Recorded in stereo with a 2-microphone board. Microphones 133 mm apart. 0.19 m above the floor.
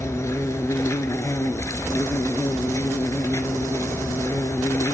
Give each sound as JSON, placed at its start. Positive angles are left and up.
{"t": 0.0, "sound": "an insect", "side_deg": 25, "distance_m": 0.8}